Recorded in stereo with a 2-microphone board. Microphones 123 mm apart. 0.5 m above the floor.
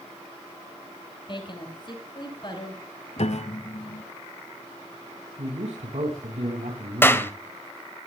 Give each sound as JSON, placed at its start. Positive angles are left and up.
{"t": 1.3, "sound": "a woman speaking", "side_deg": 40, "distance_m": 6.0}
{"t": 3.2, "sound": "a piano", "side_deg": 60, "distance_m": 0.9}
{"t": 5.4, "sound": "a man speaking", "side_deg": -60, "distance_m": 4.0}
{"t": 7.0, "sound": "a clap", "side_deg": 20, "distance_m": 1.5}